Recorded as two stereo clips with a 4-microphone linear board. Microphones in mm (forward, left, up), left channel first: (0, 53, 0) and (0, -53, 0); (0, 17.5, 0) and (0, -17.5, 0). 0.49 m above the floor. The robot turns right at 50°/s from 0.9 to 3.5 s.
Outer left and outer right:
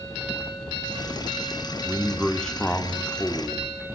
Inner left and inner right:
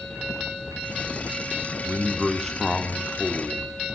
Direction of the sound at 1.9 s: 5° right (ahead or behind).